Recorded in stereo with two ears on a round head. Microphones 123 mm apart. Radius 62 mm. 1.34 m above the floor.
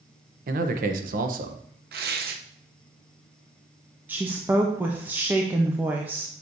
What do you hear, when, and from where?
0.5 s a man speaking: 65° right (ahead or behind), 0.9 m
1.9 s tearing paper: 75° right (ahead or behind), 0.8 m
4.1 s a woman speaking: 15° right (ahead or behind), 0.8 m